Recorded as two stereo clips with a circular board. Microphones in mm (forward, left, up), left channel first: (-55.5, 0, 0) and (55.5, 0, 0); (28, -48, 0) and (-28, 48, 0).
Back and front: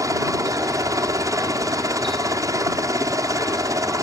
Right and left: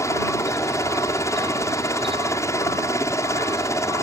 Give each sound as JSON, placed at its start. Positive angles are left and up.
{"t": 0.0, "sound": "a helicopter", "azimuth_deg": -25}